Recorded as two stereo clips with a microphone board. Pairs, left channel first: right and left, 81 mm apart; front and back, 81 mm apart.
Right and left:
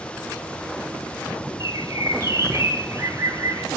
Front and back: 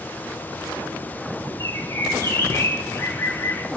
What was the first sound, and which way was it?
A bird, 50° left.